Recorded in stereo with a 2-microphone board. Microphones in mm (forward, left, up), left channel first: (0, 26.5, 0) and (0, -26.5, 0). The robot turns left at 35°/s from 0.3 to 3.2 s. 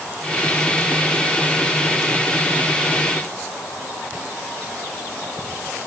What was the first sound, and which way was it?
Only background noise.